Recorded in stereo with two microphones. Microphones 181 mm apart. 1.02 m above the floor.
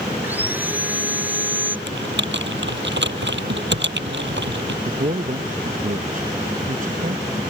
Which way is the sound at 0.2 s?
10° right (ahead or behind).